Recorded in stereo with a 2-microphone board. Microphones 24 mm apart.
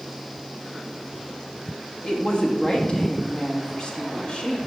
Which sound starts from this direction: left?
A woman speaking, at 2.0 s.